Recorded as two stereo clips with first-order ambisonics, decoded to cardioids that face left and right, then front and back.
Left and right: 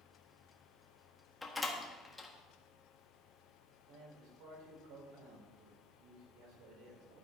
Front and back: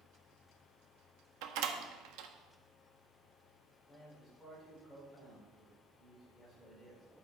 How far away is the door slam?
About 1.3 m.